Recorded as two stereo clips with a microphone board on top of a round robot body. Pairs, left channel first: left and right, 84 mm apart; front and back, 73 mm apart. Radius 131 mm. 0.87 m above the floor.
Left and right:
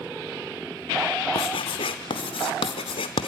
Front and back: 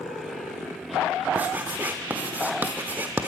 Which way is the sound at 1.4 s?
110° left.